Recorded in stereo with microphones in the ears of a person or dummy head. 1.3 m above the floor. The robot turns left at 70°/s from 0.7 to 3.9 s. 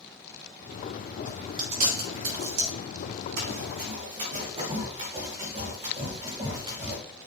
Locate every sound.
1.2 s chewing: 10° right (ahead or behind), 6.5 m; by 2.8 s 65° right (ahead or behind), 6.5 m
3.4 s running footsteps: 65° right (ahead or behind), 4.5 m; by 7.0 s 25° right (ahead or behind), 7 m